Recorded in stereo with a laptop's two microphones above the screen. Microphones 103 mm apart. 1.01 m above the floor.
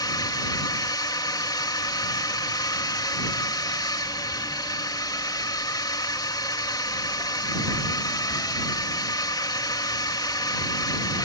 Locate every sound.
0.0 s a drone: 40° left (ahead or behind)